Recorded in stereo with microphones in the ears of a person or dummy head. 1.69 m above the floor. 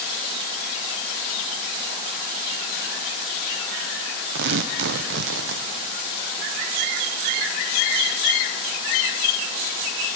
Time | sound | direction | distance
4.3 | tearing paper | 70° right (ahead or behind) | 0.8 m